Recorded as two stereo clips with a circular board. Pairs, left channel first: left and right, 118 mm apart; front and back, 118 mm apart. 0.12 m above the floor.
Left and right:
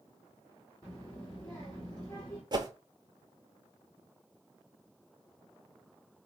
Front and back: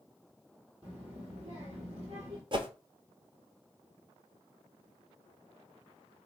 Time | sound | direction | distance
0.8 | a child speaking | 140° left | 1.3 m
2.5 | a whoosh | 140° right | 0.7 m